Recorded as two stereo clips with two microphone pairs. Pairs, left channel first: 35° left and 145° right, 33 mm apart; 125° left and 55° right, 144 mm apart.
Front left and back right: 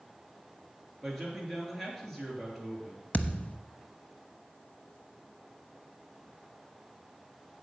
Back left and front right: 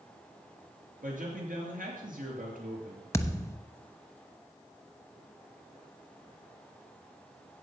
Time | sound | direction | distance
1.0 | a man speaking | 45° right | 4.5 m
3.1 | a thud | 60° left | 0.8 m